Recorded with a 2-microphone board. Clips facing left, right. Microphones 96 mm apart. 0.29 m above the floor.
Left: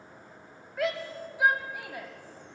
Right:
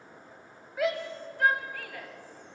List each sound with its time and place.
0.8 s a shout: 5° right (ahead or behind), 1.6 m; by 2.1 s 20° left (ahead or behind), 2 m